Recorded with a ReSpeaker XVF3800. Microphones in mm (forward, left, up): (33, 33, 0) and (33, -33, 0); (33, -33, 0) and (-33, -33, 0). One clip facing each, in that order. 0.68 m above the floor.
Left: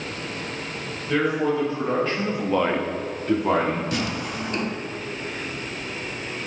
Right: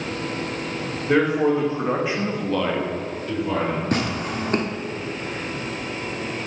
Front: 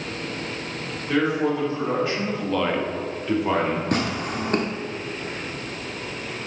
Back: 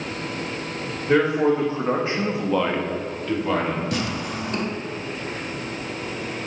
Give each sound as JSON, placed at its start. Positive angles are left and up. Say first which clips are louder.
{"t": 1.1, "sound": "a man speaking", "louder": "right 3 dB, back 3 dB", "azimuth_deg": -125, "distance_m": 1.9}
{"t": 3.9, "sound": "tearing paper", "louder": "right 3 dB, front 2 dB", "azimuth_deg": -45, "distance_m": 0.9}